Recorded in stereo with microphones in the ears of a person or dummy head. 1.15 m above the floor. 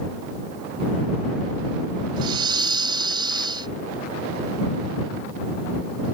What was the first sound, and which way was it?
Breathing, 25° right (ahead or behind).